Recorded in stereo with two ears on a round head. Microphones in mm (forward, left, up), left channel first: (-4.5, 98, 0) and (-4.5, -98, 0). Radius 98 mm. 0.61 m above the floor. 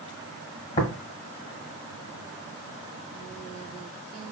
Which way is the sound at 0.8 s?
30° left (ahead or behind).